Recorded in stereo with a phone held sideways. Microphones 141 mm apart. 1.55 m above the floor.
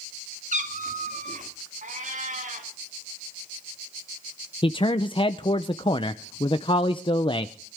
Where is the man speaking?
40° left (ahead or behind), 0.6 m.